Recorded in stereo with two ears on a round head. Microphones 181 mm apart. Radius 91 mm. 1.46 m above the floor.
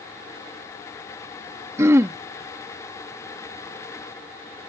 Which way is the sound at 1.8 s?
15° right (ahead or behind).